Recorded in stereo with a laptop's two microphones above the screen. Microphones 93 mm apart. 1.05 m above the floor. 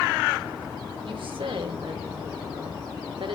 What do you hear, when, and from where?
1.0 s a woman speaking: 65° right (ahead or behind), 1.4 m